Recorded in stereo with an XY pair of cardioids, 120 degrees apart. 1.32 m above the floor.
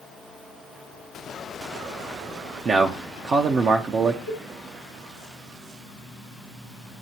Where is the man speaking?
45° right, 0.8 m.